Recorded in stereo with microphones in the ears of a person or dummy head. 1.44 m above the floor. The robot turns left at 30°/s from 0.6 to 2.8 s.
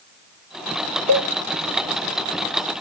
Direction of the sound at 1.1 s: 45° right (ahead or behind).